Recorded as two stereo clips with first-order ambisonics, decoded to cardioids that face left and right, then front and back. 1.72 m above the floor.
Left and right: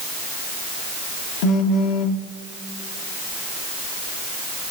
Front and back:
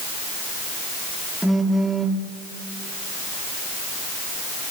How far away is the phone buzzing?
About 1.3 m.